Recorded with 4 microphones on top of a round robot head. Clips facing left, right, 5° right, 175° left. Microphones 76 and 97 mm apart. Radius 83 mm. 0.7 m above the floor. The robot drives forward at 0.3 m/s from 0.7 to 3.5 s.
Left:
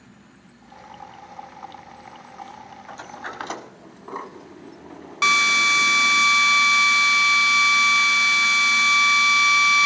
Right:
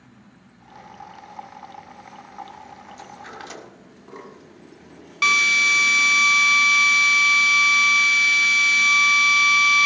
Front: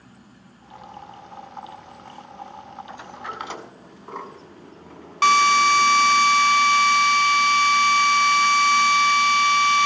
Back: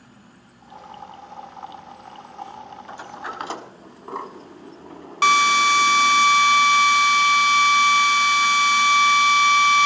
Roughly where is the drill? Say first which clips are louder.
Left 1 dB, front 1 dB; left.